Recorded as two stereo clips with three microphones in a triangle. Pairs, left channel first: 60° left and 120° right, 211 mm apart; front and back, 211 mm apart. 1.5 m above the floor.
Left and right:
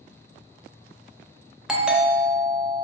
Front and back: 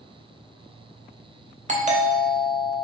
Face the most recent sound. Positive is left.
turn(degrees=155)